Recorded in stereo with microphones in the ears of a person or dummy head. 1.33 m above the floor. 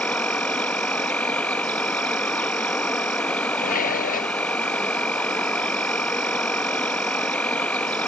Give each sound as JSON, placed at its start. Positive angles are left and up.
{"t": 0.0, "sound": "an insect", "side_deg": 5}
{"t": 3.6, "sound": "dishes clattering", "side_deg": 50}